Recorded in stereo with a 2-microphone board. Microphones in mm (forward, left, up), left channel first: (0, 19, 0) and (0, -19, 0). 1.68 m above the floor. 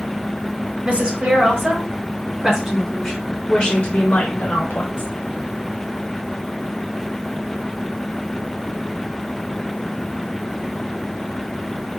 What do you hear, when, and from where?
0.8 s a woman speaking: 40° right (ahead or behind), 2 m; by 5.1 s 65° left (ahead or behind), 1.4 m